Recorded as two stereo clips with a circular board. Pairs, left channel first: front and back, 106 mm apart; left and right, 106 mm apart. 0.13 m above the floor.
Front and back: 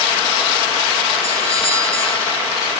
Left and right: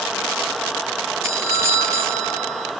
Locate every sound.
1.2 s a doorbell: 30° right, 5.5 m